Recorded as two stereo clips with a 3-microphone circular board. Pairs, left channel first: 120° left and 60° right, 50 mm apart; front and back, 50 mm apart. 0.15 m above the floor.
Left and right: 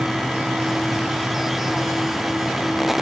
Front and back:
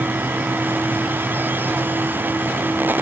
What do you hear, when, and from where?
Only background noise.